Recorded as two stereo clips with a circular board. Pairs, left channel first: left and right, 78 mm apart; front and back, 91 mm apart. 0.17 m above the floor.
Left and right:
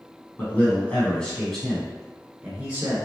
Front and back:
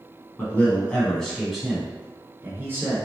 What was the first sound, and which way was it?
A man speaking, 50° left.